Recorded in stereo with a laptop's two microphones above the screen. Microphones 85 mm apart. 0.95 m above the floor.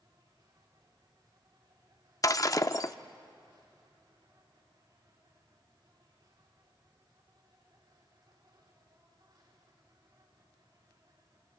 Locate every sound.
0.0 s an insect: 55° right (ahead or behind), 4.5 m
2.2 s breaking glass: 40° left (ahead or behind), 0.6 m